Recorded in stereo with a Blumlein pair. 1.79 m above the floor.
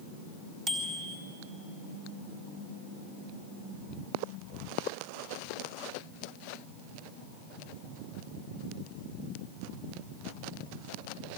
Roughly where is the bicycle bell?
Ahead right.